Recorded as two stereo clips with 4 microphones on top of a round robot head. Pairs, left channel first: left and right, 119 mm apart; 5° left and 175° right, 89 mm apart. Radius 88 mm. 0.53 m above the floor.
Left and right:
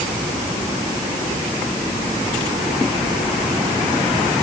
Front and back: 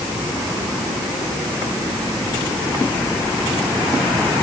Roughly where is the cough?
I don't hear a cough.